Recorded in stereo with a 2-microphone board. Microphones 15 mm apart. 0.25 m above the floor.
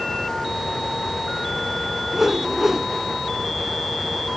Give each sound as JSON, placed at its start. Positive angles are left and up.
{"t": 2.1, "sound": "a whoosh", "side_deg": -20, "distance_m": 1.0}